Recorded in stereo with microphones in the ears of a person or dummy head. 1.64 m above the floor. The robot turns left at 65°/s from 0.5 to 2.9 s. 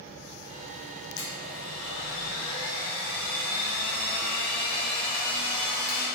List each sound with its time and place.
1.2 s a blender: 120° left, 1.9 m; by 6.1 s 5° left, 1.9 m